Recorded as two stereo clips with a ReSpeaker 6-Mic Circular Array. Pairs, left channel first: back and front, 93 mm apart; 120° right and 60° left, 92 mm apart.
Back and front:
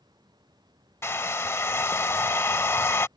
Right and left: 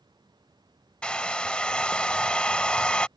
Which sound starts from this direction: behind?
A hair dryer, at 1.0 s.